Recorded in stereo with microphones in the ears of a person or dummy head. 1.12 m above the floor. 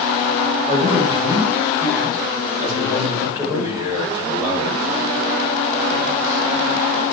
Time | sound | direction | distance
0.7 | a man speaking | 25° right (ahead or behind) | 5.5 m
3.5 | a man speaking | 15° right (ahead or behind) | 6.5 m